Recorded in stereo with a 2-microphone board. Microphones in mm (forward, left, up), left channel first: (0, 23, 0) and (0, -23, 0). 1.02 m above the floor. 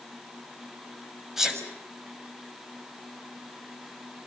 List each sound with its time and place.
1.4 s a sneeze: 10° right (ahead or behind), 6 m